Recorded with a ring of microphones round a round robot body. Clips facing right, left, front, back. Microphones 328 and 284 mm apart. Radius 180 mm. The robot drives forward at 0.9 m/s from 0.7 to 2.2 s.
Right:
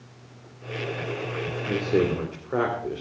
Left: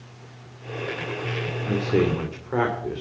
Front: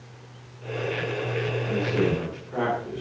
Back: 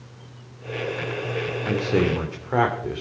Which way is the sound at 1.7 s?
170° left.